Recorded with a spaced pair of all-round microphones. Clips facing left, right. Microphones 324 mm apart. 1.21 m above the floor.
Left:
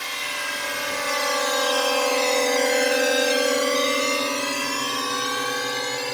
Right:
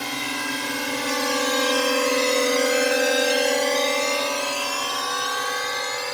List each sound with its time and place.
0.0 s a drone: 60° right (ahead or behind); by 6.1 s 45° left (ahead or behind)